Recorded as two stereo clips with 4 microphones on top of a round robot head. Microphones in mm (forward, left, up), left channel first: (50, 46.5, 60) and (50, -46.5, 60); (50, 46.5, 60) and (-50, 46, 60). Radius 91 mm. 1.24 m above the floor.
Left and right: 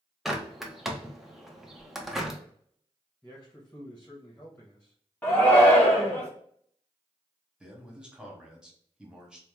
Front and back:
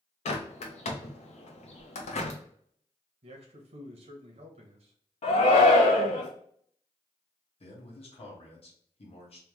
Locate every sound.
0.2 s a bird: 5° right, 0.7 m
3.2 s a man speaking: 170° left, 0.7 m
5.2 s a shout: 15° left, 0.5 m
7.6 s a man speaking: 10° right, 1.3 m